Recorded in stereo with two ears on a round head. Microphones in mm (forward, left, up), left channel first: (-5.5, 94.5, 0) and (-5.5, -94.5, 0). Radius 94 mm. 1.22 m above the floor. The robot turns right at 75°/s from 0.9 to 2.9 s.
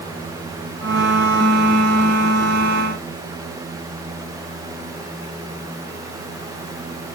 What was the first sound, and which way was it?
Only background noise.